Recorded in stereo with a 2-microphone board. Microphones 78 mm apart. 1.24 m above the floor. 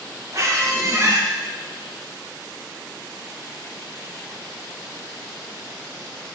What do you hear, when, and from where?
0.3 s a squeak: 40° right (ahead or behind), 0.9 m